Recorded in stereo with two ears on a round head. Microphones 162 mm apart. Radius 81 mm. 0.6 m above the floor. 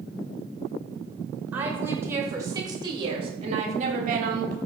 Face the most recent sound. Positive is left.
turn(degrees=-55)  # may be behind; listen again after turning